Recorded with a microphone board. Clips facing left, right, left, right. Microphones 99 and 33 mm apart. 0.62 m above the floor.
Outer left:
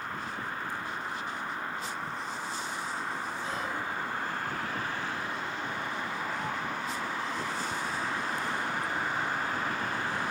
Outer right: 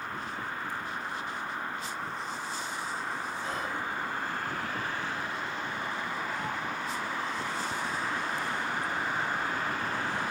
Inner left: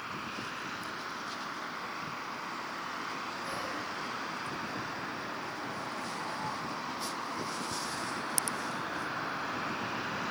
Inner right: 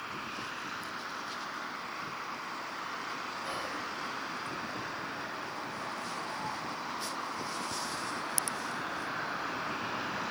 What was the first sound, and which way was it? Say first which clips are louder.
Whispering: even, even; 50° right (ahead or behind).